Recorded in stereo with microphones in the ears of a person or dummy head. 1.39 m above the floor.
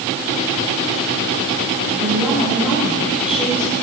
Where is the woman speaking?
5° right (ahead or behind), 7.5 m.